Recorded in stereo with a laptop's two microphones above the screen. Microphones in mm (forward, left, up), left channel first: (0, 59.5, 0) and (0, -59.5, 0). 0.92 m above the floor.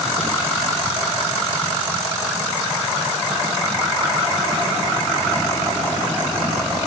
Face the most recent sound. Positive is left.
No sound to turn to.